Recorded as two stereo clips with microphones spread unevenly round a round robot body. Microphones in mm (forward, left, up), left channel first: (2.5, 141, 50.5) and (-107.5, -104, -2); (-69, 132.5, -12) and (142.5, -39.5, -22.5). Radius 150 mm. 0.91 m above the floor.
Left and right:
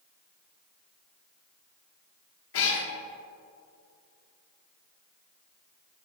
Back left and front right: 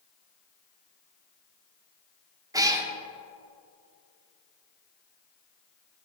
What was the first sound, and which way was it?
A cat meowing, 40° left.